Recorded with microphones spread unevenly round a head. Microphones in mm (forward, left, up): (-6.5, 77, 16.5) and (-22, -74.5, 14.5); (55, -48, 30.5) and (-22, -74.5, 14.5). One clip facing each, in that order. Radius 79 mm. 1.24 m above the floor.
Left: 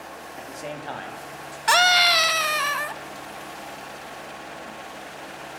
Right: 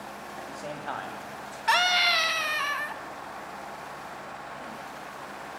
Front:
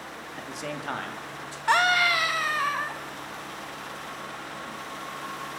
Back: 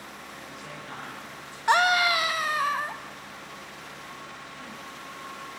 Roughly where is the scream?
Behind left.